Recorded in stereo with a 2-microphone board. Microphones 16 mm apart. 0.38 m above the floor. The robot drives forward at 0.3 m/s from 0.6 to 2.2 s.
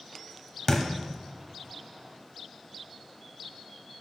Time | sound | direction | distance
0.7 | a thud | 35° left (ahead or behind) | 0.8 m